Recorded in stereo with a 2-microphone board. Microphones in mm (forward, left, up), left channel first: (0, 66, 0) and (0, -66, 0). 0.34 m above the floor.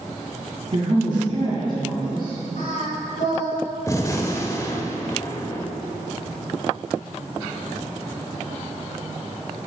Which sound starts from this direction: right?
A woman speaking, at 0.7 s.